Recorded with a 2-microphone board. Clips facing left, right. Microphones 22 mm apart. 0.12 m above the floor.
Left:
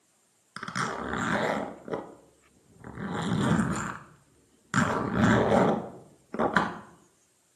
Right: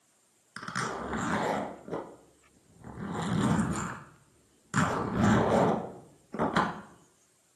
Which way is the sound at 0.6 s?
30° left (ahead or behind).